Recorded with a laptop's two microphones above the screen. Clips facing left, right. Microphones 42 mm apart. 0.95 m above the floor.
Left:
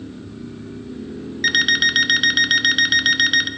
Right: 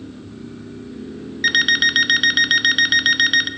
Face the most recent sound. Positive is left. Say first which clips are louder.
# right 1 dB
turn(degrees=-5)  # may be behind; listen again after turning